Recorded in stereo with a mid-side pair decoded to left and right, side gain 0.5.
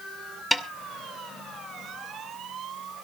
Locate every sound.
0.5 s a snare drum: 5° left, 1.7 m